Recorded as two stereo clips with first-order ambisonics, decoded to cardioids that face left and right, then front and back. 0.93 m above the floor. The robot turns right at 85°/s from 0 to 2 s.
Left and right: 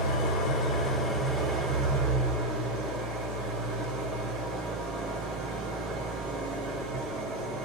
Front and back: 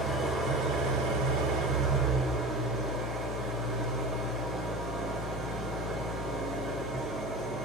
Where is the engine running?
95° left, 3.5 m; by 7.6 s 95° right, 3.5 m.